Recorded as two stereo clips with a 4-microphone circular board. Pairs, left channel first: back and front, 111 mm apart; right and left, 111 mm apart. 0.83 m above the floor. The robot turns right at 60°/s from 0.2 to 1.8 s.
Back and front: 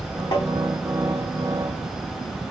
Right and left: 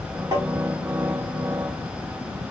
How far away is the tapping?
About 1.8 m.